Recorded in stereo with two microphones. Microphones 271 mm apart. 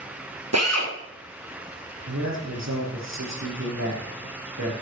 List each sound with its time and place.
0.5 s a drill: 65° right (ahead or behind), 4.5 m
2.1 s a man speaking: 75° right (ahead or behind), 7 m